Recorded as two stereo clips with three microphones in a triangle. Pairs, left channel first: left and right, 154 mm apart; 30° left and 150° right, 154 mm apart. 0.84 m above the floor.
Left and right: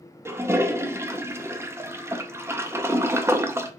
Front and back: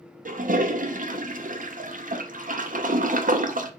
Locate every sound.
0.2 s a toilet flushing: 165° right, 0.6 m